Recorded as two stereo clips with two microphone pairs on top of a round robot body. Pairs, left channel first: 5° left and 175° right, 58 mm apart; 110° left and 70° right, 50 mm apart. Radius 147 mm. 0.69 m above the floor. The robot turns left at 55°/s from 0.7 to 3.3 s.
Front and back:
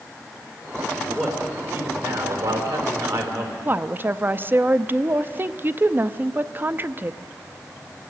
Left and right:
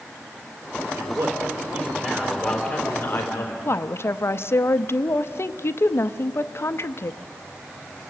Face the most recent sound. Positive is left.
turn(degrees=140)